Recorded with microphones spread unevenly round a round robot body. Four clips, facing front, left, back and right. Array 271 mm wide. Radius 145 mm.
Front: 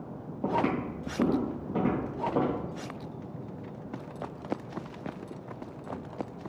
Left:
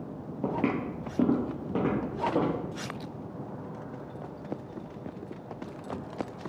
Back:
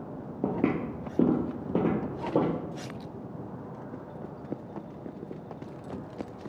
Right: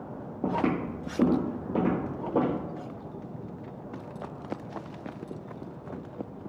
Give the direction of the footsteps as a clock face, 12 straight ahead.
6 o'clock.